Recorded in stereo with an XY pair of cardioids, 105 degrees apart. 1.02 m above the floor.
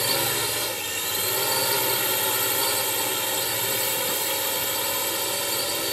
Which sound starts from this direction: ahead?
A drone, at 0.0 s.